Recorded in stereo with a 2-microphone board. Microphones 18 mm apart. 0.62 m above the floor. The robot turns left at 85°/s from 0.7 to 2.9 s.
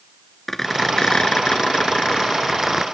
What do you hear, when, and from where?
0.5 s a squeak: 160° left, 0.8 m; by 2.8 s 25° right, 0.8 m